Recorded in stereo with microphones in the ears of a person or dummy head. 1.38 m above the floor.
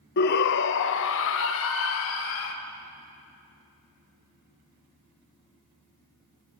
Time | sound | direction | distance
0.2 | a shout | 55° left (ahead or behind) | 0.9 m